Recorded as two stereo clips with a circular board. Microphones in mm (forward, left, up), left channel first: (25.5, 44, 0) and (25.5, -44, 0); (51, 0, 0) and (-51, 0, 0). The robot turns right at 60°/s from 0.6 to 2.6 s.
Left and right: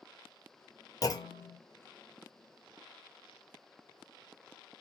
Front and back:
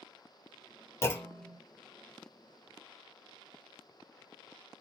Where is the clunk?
55° left, 0.6 m; by 1.6 s 90° left, 0.6 m.